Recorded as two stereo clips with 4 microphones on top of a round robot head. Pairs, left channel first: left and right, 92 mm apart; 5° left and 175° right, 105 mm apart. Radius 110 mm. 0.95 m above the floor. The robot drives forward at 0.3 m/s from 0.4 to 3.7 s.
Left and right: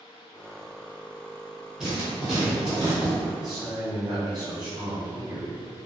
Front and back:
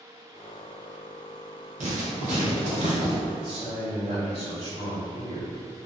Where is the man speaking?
175° right, 1.6 m.